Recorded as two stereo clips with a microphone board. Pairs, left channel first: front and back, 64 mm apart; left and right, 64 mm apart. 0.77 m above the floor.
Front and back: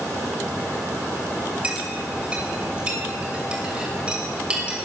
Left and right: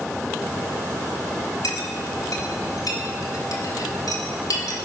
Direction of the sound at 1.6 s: 110° left.